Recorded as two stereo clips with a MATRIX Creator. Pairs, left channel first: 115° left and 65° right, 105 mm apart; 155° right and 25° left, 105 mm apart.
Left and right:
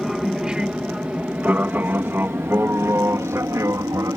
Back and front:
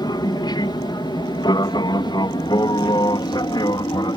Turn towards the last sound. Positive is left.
turn(degrees=-120)